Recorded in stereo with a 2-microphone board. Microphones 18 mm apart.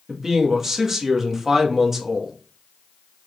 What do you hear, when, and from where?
0.1 s a man speaking: 25° right (ahead or behind), 1.9 m